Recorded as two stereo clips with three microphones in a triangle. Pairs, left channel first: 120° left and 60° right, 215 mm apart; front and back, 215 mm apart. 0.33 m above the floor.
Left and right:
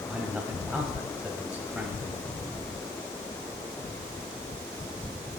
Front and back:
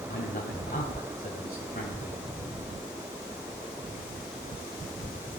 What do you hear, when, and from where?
0.1 s a man speaking: 25° left, 2.0 m